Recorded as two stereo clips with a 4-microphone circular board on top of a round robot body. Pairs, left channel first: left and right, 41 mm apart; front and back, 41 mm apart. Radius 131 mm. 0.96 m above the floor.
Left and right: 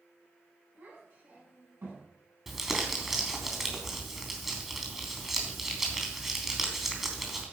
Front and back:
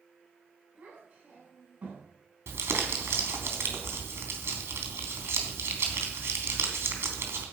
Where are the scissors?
I don't hear scissors.